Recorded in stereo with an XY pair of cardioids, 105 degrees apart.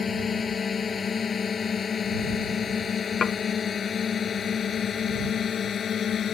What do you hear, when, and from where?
0.0 s a drone: 45° left; by 6.3 s 55° left
3.2 s dishes clattering: 45° left